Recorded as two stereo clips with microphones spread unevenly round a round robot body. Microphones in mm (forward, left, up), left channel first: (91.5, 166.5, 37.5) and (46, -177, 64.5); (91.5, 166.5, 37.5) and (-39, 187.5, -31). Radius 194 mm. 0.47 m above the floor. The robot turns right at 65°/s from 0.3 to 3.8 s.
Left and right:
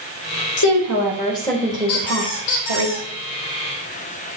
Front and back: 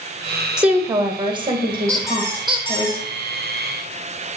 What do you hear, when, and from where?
0.6 s a woman speaking: 105° left, 2.5 m; by 2.9 s 105° right, 2.5 m
1.9 s a squeak: 70° left, 3.5 m; by 3.1 s 145° left, 3.5 m